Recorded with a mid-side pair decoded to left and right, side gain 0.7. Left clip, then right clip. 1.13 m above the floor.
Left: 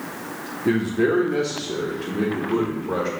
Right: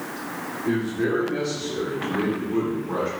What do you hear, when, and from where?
0.7 s a man speaking: 50° left, 0.9 m; by 3.1 s 65° left, 2.5 m